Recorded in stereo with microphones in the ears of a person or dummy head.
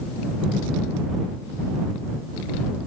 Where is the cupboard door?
No cupboard door in this recording.